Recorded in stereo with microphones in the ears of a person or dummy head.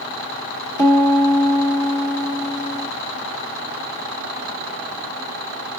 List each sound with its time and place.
0.8 s a piano: 15° left (ahead or behind), 1.2 m